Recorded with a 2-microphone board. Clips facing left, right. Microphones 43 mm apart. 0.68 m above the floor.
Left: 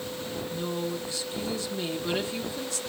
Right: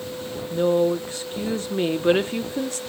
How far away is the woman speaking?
About 0.8 m.